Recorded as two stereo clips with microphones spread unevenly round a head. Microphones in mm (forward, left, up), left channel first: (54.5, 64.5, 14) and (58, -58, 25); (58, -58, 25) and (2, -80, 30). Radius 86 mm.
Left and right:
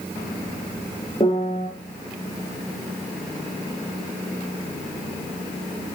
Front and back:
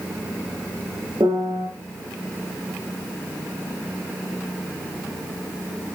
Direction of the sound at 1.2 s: 155° left.